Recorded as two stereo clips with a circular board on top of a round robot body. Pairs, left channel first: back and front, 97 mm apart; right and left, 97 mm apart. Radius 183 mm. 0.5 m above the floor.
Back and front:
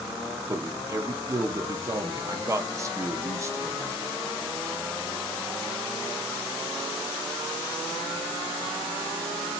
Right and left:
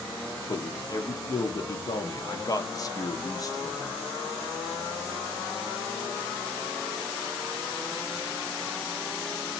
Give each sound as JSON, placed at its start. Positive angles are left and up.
{"t": 0.5, "sound": "a man speaking", "azimuth_deg": -50, "distance_m": 0.9}